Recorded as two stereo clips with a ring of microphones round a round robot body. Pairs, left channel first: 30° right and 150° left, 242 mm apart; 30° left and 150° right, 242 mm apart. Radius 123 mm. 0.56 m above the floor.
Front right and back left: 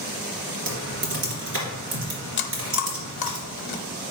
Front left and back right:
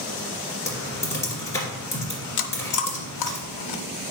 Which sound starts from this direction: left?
Typing on a keyboard, at 0.7 s.